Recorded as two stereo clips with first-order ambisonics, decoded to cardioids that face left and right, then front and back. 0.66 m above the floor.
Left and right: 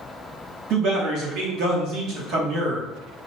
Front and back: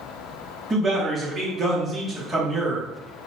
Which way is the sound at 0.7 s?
100° right.